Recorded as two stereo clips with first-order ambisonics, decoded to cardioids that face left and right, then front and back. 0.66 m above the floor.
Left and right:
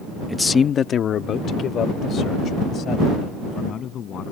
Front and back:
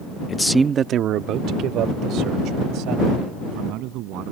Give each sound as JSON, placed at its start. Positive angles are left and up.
{"t": 0.3, "sound": "a man speaking", "azimuth_deg": 5}